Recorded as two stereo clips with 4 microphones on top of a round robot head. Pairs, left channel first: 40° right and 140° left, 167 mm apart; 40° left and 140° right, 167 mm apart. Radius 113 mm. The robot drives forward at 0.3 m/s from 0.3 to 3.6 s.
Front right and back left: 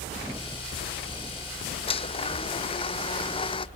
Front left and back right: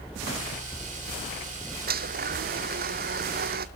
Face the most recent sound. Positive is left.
turn(degrees=-105)